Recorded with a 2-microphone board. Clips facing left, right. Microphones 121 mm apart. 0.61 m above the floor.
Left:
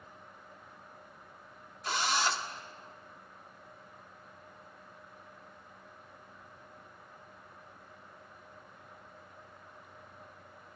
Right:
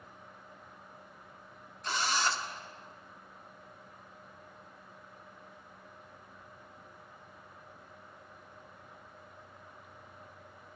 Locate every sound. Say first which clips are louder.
1.8 s a drill: left 1 dB; 5° left (ahead or behind), 1.4 m